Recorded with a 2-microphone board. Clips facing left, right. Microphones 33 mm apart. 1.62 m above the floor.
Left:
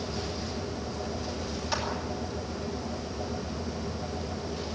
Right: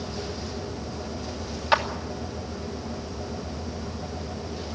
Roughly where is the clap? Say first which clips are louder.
Right 11 dB; right.